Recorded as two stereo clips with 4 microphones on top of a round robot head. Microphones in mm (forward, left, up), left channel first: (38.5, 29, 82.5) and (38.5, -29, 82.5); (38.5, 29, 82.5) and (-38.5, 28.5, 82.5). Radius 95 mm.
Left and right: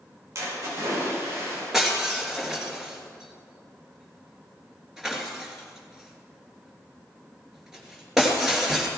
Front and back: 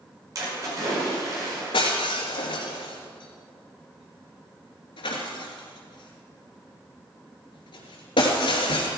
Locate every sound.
0.3 s a splash: 130° right, 5.5 m
1.7 s breaking glass: 5° right, 3 m